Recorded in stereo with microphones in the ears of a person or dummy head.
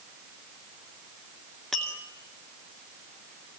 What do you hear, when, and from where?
1.7 s tapping: 5° left (ahead or behind), 2.5 m